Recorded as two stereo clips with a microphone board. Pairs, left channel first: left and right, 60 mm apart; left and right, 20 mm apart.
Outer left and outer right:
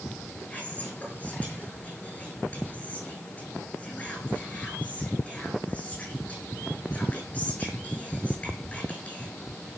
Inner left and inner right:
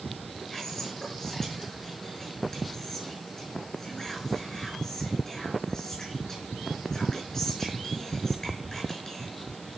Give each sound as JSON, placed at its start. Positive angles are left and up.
{"t": 0.5, "sound": "whispering", "side_deg": 20, "distance_m": 8.0}